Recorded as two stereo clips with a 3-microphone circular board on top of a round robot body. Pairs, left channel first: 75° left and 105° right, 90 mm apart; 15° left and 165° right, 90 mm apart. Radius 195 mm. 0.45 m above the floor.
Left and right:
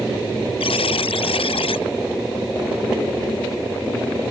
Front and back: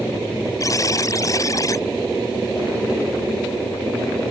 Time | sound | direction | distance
0.6 | a buzzer | 65° left | ?